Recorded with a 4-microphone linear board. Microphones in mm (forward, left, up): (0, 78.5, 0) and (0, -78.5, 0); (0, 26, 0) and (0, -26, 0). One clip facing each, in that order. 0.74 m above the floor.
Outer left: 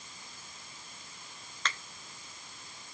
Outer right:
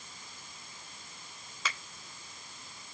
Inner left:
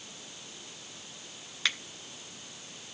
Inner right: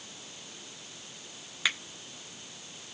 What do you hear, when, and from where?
1.6 s a finger snap: 10° right (ahead or behind), 1.0 m